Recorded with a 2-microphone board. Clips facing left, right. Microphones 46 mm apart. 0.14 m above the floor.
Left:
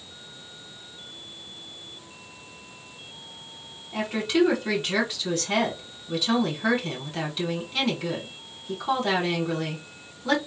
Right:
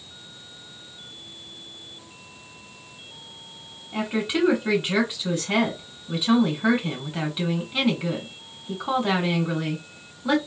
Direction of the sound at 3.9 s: 15° right (ahead or behind).